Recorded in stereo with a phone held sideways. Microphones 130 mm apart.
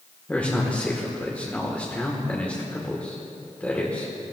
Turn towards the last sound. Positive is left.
turn(degrees=15)  # may be behind; listen again after turning